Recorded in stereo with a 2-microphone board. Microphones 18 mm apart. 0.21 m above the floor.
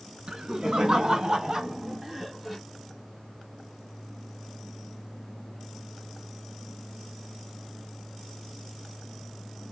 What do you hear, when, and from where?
0.3 s laughter: 55° right (ahead or behind), 2.5 m; by 2.6 s 5° right (ahead or behind), 1.6 m